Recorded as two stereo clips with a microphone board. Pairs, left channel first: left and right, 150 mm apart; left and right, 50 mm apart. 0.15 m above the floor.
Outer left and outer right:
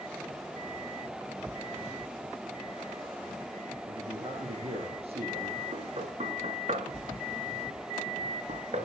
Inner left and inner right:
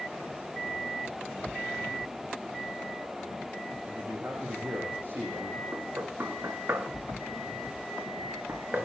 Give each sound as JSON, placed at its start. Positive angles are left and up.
{"t": 3.9, "sound": "a man speaking", "side_deg": -40, "distance_m": 9.5}
{"t": 5.7, "sound": "knocking", "side_deg": -50, "distance_m": 2.0}